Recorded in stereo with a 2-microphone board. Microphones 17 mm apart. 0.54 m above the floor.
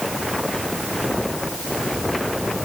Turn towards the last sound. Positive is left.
No sound to turn to.